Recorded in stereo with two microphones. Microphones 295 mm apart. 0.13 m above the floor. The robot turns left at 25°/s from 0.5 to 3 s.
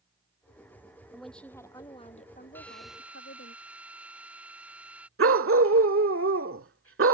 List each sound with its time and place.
1.1 s a woman speaking: straight behind; by 3.5 s 135° left
2.5 s a drill: 5° left (ahead or behind); by 5.1 s 5° right (ahead or behind)
5.2 s a dog barking: 45° right (ahead or behind)